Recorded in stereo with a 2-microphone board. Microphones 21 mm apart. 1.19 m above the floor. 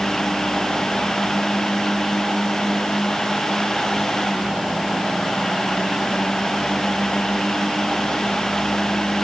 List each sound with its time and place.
Only background noise.